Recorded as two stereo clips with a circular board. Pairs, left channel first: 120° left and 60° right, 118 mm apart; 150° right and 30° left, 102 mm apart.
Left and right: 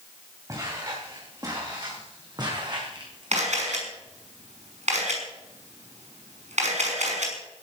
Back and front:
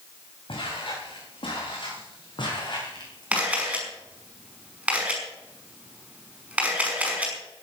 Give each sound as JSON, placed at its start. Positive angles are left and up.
{"t": 0.5, "sound": "footsteps", "azimuth_deg": -120, "distance_m": 7.0}
{"t": 3.3, "sound": "a camera shutter", "azimuth_deg": -50, "distance_m": 5.5}